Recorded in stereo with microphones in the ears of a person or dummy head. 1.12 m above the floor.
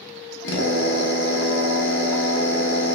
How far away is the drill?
About 1.1 m.